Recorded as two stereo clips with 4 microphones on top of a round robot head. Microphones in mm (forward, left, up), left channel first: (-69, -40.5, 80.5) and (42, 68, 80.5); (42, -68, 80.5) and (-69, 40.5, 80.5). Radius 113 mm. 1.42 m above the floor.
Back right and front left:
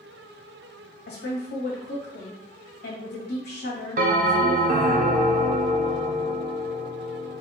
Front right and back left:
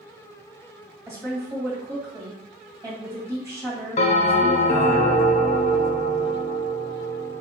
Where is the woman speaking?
150° right, 1.6 m.